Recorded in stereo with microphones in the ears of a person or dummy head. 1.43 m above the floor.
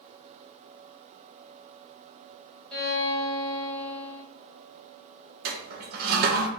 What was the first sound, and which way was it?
A violin, 5° left (ahead or behind).